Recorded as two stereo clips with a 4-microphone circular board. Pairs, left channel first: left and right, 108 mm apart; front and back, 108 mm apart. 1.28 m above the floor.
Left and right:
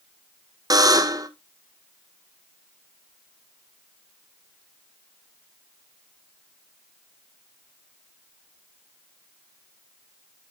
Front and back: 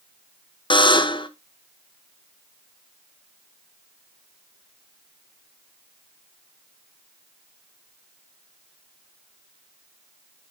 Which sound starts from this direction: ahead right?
A buzzer, at 0.7 s.